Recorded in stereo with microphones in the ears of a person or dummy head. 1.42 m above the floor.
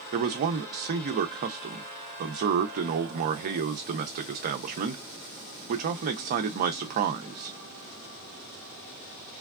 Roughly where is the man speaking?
Right.